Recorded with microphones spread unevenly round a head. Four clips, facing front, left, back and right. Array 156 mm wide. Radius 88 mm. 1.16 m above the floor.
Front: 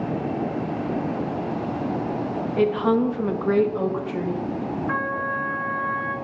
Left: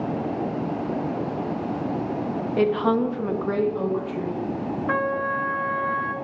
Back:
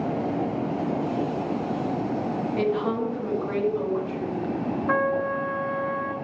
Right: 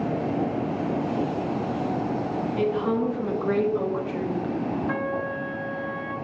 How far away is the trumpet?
About 0.8 m.